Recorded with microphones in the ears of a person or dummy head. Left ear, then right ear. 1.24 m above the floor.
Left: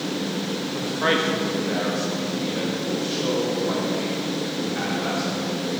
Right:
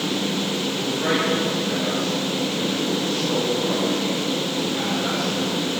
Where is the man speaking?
60° left (ahead or behind), 1.8 m; by 5.8 s 50° left (ahead or behind), 5 m.